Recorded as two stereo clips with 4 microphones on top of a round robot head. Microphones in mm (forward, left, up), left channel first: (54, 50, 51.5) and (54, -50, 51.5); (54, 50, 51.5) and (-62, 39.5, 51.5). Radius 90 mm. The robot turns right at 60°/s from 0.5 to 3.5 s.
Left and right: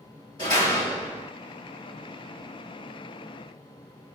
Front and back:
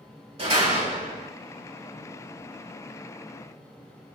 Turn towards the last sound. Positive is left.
turn(degrees=-30)